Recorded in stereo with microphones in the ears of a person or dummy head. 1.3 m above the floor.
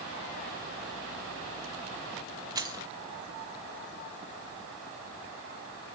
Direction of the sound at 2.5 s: 15° right (ahead or behind).